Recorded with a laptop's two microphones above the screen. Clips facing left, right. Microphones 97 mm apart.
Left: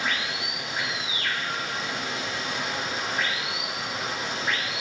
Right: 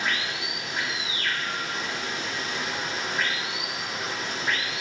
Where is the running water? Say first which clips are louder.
Even; 10° left (ahead or behind), 4 m.